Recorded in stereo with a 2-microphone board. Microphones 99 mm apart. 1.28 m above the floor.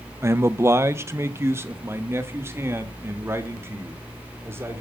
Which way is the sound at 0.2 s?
30° right (ahead or behind).